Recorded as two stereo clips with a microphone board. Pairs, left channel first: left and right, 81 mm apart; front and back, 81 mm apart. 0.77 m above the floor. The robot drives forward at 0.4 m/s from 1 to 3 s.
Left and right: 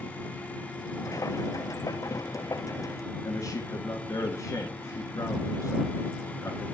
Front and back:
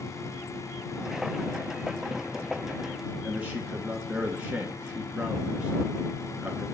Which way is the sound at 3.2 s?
110° left.